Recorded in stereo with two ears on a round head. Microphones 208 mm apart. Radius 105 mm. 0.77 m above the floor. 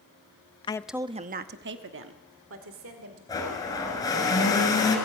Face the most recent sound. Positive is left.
turn(degrees=15)  # may be behind; listen again after turning